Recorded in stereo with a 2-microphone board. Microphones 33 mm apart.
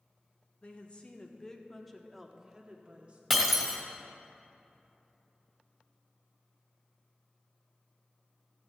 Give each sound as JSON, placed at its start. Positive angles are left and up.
{"t": 0.6, "sound": "a woman speaking", "side_deg": 45, "distance_m": 1.2}
{"t": 3.3, "sound": "breaking glass", "side_deg": -5, "distance_m": 1.9}